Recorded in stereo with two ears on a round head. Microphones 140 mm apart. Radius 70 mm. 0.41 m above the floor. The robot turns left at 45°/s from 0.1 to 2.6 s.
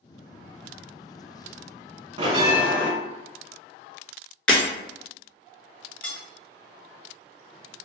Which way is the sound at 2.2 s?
35° right (ahead or behind).